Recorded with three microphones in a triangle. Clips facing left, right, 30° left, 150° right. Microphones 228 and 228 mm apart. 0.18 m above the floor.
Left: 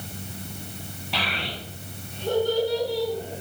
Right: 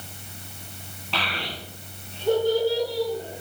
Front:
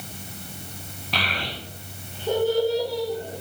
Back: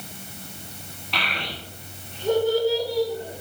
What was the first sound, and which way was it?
A child speaking, 15° left.